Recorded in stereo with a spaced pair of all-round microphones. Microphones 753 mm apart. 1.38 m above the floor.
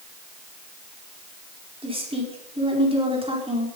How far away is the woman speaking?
About 4.5 m.